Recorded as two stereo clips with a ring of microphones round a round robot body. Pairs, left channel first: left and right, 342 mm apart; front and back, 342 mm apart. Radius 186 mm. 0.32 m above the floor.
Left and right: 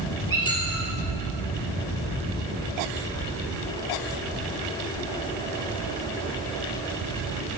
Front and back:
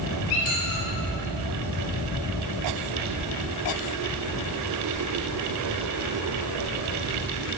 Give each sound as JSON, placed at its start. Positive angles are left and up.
{"t": 0.3, "sound": "a squeak", "azimuth_deg": 15, "distance_m": 3.5}